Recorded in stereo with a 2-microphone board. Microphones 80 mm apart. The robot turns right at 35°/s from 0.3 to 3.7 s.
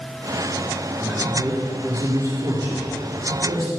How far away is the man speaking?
About 4 m.